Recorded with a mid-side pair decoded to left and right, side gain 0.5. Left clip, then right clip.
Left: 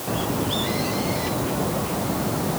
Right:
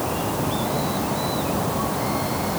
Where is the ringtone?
No ringtone in this recording.